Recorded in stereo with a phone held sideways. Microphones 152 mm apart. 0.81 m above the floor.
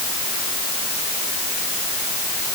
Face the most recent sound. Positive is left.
No sound to turn to.